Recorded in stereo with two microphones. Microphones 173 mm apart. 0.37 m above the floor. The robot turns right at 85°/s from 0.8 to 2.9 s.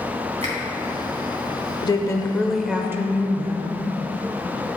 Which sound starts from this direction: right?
A finger snap, at 0.4 s.